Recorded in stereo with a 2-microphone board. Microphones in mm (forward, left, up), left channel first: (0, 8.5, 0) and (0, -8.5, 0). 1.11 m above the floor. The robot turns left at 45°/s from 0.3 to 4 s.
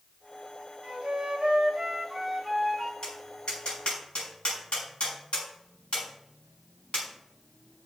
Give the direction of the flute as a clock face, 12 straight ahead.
4 o'clock.